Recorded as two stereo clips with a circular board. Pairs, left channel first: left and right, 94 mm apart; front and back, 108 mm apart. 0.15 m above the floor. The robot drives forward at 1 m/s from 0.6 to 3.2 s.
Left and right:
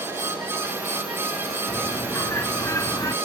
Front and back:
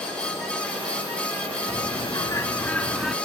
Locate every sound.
1.7 s a bird: 35° left; by 3.1 s 90° left